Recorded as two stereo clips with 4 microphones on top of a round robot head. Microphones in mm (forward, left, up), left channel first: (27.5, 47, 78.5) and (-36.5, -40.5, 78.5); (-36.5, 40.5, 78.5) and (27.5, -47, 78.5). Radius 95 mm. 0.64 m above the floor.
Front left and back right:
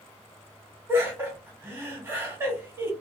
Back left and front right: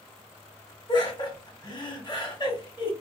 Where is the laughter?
170° left, 1.7 m.